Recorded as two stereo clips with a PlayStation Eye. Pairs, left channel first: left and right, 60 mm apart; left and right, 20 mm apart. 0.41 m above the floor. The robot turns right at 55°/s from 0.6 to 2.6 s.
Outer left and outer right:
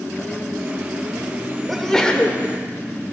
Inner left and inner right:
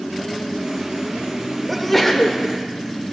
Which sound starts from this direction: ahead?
A sneeze, at 1.7 s.